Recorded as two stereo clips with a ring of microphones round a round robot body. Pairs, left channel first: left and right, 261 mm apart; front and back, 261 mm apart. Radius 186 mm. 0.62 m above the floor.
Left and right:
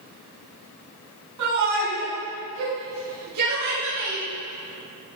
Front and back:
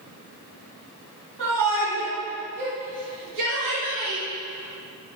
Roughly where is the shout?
Right.